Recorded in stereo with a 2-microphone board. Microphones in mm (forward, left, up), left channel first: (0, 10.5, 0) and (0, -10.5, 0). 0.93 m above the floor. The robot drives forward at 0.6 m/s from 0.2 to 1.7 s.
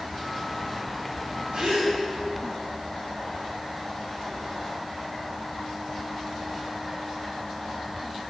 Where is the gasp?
75° right (ahead or behind), 1.5 m; by 1.9 s 70° right (ahead or behind), 1.6 m.